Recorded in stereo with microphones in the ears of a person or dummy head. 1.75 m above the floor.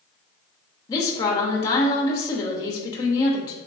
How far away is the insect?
I don't hear an insect.